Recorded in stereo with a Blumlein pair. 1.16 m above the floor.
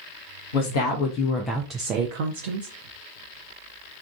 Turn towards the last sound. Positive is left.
turn(degrees=-70)